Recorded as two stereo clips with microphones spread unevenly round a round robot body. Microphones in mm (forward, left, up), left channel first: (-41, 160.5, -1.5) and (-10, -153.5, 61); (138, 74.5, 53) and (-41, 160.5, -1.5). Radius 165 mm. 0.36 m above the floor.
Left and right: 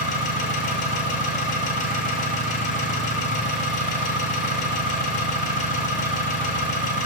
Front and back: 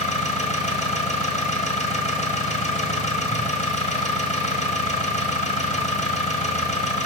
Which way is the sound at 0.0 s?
35° left.